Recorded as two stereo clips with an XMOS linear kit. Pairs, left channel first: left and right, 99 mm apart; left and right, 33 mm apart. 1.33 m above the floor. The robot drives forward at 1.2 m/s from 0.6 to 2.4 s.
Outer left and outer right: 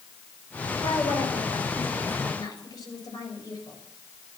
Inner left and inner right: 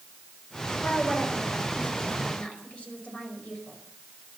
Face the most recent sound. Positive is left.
turn(degrees=40)  # may be behind; listen again after turning